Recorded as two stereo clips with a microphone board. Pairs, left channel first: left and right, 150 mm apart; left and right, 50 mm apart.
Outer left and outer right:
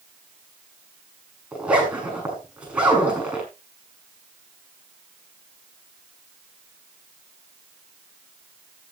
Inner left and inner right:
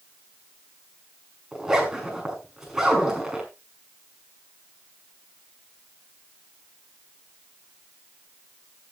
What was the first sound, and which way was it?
A zipper, 10° right (ahead or behind).